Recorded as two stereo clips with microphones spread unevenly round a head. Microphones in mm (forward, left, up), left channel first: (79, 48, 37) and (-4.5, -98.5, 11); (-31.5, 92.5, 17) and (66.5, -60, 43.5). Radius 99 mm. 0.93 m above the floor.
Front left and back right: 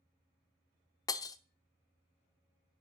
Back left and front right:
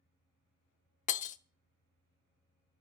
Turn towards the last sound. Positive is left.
turn(degrees=95)